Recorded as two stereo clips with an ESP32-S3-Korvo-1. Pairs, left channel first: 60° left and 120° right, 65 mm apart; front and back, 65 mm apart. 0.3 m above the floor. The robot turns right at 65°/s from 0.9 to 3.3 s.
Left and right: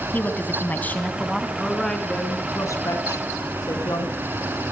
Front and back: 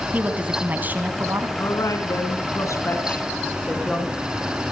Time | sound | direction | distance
0.1 | a woman speaking | 120° left | 3 m
1.6 | a woman speaking | 40° right | 3.5 m